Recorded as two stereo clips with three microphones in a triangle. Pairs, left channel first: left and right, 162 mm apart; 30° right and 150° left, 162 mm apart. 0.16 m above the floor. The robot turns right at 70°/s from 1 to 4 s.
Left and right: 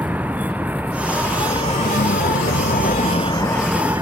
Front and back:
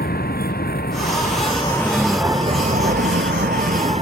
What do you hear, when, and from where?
0.0 s a vehicle: 10° right; by 4.0 s 160° right